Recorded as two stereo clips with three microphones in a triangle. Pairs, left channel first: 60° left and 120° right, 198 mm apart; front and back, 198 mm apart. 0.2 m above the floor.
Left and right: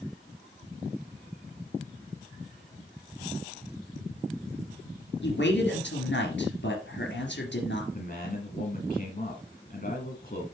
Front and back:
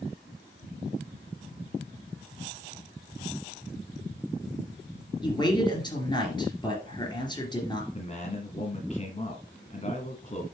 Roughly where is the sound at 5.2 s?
Ahead left.